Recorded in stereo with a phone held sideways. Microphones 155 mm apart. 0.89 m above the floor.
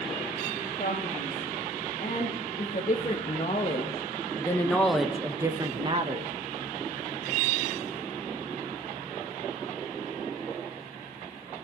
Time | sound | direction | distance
0.8 | a man speaking | 65° left (ahead or behind) | 2.5 m